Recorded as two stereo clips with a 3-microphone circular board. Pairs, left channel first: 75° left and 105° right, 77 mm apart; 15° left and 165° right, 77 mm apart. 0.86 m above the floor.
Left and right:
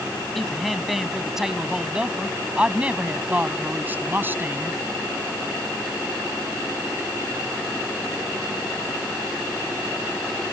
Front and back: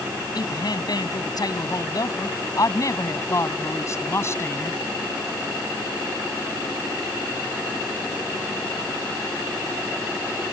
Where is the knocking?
No knocking in this recording.